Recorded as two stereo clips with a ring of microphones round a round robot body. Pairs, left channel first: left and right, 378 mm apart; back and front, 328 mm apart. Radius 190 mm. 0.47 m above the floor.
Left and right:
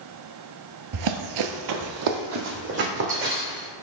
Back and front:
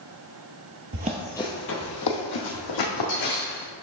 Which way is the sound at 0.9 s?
55° right.